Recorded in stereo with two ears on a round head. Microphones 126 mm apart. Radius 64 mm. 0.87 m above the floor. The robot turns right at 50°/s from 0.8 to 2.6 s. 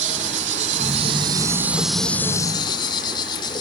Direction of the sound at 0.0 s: 55° right.